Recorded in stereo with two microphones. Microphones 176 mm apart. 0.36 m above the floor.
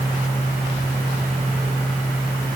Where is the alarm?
I don't hear an alarm.